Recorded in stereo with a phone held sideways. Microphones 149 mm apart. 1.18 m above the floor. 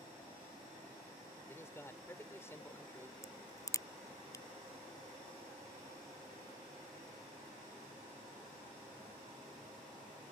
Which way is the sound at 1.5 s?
20° left (ahead or behind).